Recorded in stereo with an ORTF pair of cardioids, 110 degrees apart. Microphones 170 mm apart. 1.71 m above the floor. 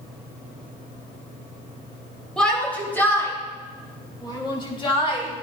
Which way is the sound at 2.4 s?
5° left.